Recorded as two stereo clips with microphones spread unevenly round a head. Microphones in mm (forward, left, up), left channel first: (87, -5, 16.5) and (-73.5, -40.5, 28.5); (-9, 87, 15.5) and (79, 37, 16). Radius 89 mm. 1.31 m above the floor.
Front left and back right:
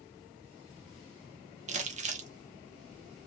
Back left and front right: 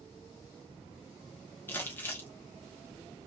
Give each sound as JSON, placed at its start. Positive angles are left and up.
{"t": 1.7, "sound": "crumpling", "azimuth_deg": -150, "distance_m": 0.6}